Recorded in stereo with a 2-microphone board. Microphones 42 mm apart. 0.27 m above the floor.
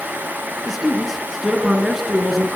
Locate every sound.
0.7 s a man speaking: 5° right (ahead or behind), 3.5 m